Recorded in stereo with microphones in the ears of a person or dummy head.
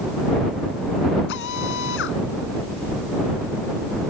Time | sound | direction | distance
1.3 | a drill | 60° left (ahead or behind) | ?